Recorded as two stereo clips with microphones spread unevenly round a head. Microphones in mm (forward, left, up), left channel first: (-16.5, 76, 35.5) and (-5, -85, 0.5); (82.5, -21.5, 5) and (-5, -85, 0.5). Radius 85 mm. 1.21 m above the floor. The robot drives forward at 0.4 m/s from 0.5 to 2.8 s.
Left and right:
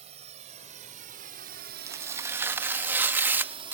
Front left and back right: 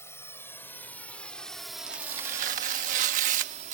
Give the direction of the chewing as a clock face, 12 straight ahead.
I don't hear chewing.